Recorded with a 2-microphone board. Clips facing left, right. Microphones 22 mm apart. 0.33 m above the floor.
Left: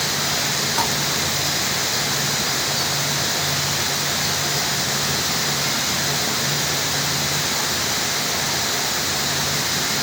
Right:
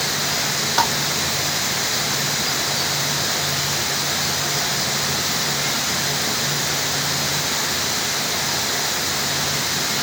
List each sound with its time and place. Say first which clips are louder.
0.8 s tapping: right 5 dB; 40° right (ahead or behind)